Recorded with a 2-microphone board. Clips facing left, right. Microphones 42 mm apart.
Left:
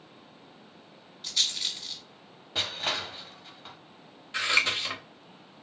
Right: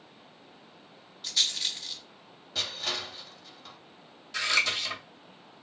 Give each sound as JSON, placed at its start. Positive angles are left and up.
{"t": 1.2, "sound": "a rattle", "side_deg": 0, "distance_m": 1.5}
{"t": 2.5, "sound": "crushing", "side_deg": 30, "distance_m": 0.6}
{"t": 4.3, "sound": "scissors", "side_deg": 30, "distance_m": 0.9}